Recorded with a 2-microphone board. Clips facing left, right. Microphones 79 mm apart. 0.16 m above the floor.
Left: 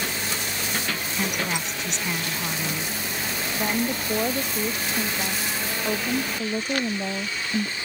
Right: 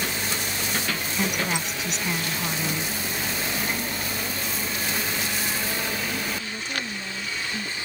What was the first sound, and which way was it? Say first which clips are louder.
A woman speaking: right 1 dB; 5° right (ahead or behind).